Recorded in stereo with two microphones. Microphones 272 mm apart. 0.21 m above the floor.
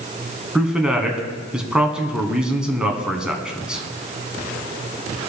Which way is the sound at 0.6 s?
5° right (ahead or behind).